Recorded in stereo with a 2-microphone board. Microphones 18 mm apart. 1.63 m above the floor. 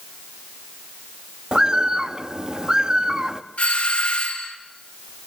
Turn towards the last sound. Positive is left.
turn(degrees=80)